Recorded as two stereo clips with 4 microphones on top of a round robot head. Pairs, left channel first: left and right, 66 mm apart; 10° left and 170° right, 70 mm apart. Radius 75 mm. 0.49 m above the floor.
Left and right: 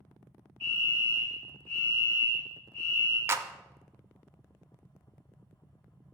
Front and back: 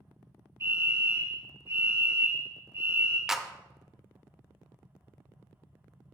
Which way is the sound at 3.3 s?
90° right.